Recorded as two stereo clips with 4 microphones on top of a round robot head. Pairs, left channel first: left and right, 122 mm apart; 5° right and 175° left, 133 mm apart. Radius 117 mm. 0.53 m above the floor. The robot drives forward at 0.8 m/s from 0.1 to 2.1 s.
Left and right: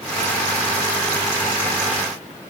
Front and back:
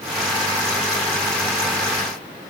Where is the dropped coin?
I don't hear a dropped coin.